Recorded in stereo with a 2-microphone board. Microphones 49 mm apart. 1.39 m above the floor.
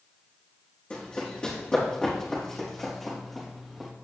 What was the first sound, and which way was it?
Running footsteps, 25° left (ahead or behind).